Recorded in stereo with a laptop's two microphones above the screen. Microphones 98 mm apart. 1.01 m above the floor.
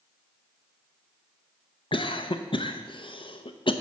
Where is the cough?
55° left (ahead or behind), 0.5 m.